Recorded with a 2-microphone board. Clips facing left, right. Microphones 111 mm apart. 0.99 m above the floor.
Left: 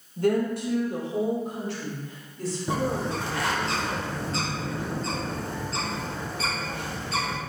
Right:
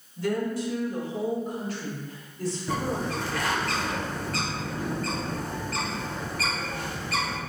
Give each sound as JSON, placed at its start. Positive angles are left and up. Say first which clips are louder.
{"t": 0.2, "sound": "a woman speaking", "louder": "left 4 dB", "side_deg": 50, "distance_m": 0.8}
{"t": 2.7, "sound": "a bird", "louder": "left 3 dB", "side_deg": 25, "distance_m": 0.7}